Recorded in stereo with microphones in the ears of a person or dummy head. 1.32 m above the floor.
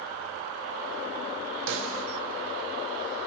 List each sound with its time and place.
1.7 s a snare drum: 65° right (ahead or behind), 0.7 m